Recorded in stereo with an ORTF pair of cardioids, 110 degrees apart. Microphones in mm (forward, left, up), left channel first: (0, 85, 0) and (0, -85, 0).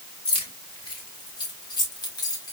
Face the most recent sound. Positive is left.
turn(degrees=20)